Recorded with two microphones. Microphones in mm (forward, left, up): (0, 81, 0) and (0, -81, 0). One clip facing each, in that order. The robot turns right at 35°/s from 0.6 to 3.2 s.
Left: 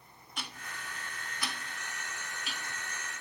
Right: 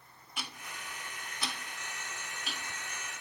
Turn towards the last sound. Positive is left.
turn(degrees=-45)  # may be behind; listen again after turning